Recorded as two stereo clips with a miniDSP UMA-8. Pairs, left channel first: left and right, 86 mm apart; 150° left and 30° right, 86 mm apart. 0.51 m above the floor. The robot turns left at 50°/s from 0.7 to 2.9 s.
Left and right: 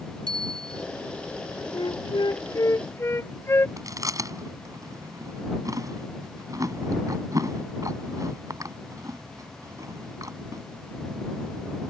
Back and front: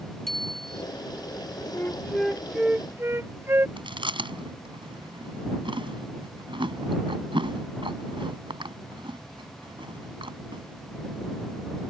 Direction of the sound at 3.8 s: 45° right.